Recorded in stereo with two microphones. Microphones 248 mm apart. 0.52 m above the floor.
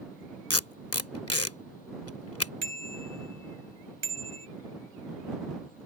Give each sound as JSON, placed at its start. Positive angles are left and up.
{"t": 0.5, "sound": "tape being pulled", "side_deg": 70}
{"t": 2.6, "sound": "a bicycle bell", "side_deg": -80}